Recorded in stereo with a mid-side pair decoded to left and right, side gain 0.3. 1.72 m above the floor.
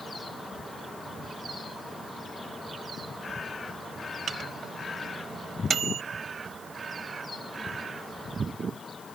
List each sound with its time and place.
4.3 s a microwave: 70° right